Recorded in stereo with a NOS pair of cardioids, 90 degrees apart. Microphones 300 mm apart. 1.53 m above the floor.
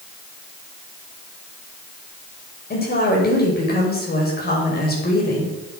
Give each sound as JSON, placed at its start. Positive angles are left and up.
{"t": 2.7, "sound": "a woman speaking", "azimuth_deg": 30, "distance_m": 6.5}